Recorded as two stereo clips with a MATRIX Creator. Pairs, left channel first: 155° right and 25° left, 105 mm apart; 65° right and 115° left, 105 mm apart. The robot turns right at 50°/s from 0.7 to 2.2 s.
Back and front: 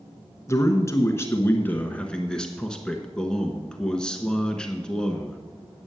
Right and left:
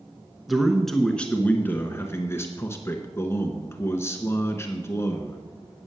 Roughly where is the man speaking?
Behind.